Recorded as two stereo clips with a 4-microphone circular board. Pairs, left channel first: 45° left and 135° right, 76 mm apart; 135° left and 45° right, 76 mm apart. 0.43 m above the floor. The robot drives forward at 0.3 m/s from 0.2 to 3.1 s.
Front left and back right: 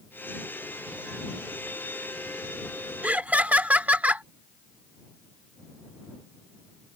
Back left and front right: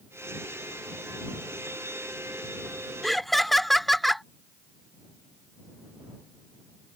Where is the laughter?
140° right.